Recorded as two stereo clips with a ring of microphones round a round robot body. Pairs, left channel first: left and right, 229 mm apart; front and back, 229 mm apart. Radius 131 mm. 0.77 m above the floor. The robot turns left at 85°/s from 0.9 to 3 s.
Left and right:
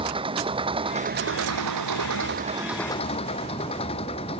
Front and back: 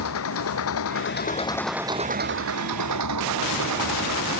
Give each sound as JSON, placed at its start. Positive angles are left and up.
{"t": 0.0, "sound": "an engine running", "azimuth_deg": -20}